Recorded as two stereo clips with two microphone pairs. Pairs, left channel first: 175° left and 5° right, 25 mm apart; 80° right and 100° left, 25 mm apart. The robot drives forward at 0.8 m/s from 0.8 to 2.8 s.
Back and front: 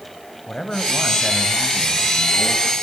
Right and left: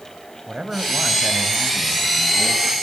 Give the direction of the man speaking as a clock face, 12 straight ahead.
8 o'clock.